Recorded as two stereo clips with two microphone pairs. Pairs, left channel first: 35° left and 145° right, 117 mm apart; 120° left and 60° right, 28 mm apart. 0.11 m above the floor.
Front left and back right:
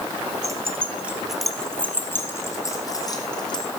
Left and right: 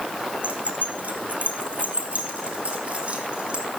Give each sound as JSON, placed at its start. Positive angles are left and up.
{"t": 0.4, "sound": "keys jangling", "azimuth_deg": -85, "distance_m": 2.5}